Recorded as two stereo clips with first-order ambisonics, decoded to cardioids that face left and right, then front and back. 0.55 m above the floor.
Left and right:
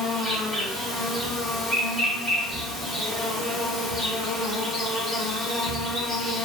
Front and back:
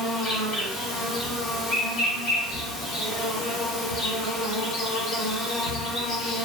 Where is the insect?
5° left, 1.8 m.